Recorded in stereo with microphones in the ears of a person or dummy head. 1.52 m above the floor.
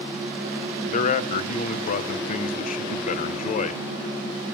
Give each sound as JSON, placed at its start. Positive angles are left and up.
{"t": 0.9, "sound": "a man speaking", "side_deg": 40, "distance_m": 1.0}